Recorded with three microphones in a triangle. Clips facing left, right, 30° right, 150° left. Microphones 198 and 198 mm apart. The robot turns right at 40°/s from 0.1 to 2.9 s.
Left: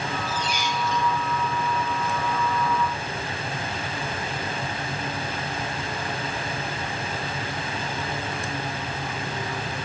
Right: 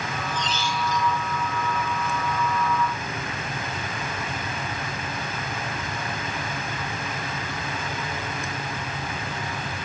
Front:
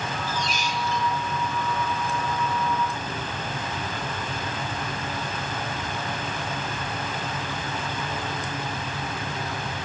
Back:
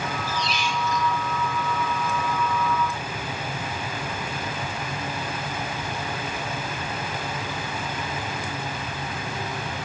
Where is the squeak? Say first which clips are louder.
Even, back 1 dB; straight ahead, 2 m; by 1.1 s 35° left, 2 m.